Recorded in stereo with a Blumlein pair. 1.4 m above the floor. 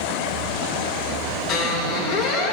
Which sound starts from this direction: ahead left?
A squeak, at 1.5 s.